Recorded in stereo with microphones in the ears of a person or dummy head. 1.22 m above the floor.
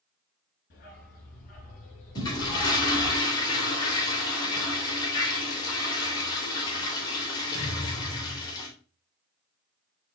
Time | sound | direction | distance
0.7 | a dog barking | 50° left (ahead or behind) | 6 m
2.1 | a toilet flushing | 20° left (ahead or behind) | 3.5 m